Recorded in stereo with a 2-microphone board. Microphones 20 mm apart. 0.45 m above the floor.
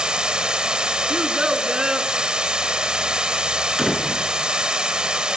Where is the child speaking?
40° right (ahead or behind), 2.5 m.